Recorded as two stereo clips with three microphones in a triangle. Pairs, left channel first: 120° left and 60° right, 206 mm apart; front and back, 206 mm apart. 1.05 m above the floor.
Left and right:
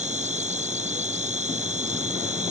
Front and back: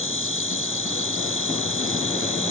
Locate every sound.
0.0 s an insect: 5° right